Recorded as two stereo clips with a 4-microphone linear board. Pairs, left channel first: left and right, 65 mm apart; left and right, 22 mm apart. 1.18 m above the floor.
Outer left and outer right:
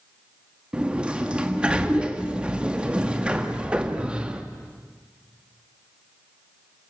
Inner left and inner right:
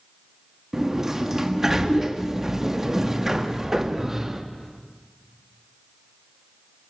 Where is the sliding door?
20° right (ahead or behind), 2 m.